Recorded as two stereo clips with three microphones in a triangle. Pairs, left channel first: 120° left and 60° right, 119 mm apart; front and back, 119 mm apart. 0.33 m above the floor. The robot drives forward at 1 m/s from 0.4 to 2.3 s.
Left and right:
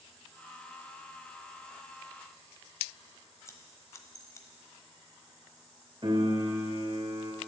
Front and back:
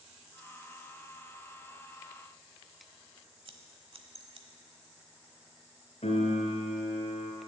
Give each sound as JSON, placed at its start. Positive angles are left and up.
{"t": 3.5, "sound": "scissors", "azimuth_deg": 175, "distance_m": 1.0}
{"t": 6.0, "sound": "a piano", "azimuth_deg": -15, "distance_m": 2.5}